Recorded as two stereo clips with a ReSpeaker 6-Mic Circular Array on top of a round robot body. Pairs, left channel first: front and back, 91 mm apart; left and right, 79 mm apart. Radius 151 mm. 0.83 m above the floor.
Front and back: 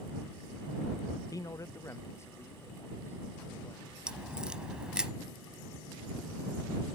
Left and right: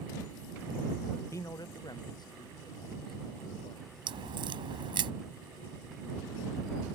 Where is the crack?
100° right.